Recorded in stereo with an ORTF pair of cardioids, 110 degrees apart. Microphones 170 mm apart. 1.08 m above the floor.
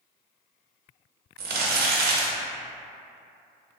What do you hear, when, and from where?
1.4 s crumpling: 65° right, 0.6 m